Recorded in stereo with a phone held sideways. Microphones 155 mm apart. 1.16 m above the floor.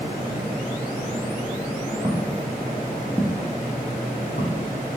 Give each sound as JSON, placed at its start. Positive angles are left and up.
{"t": 2.0, "sound": "footsteps", "side_deg": -45, "distance_m": 1.8}